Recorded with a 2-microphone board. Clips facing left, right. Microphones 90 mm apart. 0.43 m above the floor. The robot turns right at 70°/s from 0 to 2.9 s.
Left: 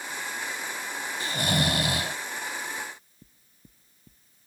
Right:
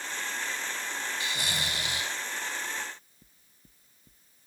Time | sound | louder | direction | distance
1.2 | snoring | left 7 dB | 35° left | ?
2.8 | knocking | left 1 dB | 10° left (ahead or behind) | ?